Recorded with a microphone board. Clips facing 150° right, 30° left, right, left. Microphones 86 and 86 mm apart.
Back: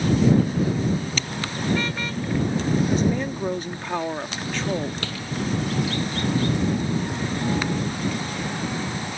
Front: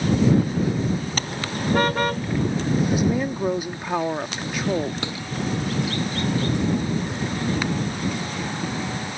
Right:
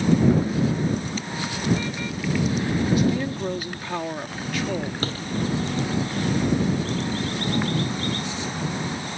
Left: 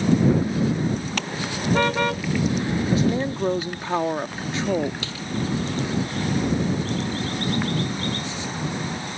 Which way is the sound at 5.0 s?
40° right.